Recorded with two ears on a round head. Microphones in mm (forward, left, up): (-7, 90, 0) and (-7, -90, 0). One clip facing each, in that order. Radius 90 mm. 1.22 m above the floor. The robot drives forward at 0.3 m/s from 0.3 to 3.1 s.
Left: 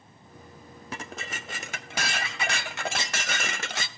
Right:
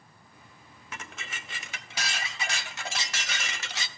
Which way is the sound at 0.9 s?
30° left (ahead or behind).